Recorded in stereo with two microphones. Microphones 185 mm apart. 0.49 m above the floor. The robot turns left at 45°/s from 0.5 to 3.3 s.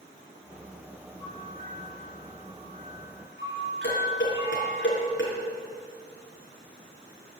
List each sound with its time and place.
1.2 s a bell: straight ahead, 5 m; by 4.8 s 95° right, 5 m
3.8 s dishes clattering: 80° left, 4.5 m